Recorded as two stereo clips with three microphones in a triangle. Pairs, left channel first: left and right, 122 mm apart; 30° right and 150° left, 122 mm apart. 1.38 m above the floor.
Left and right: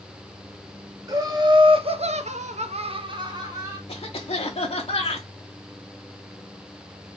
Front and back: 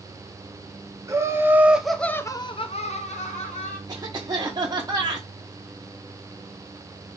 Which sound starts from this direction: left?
A cough, at 3.9 s.